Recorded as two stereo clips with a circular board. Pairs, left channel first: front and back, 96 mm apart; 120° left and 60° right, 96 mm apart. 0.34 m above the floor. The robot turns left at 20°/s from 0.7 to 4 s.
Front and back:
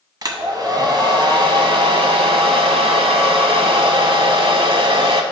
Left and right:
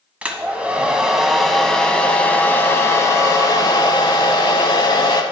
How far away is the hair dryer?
About 0.7 m.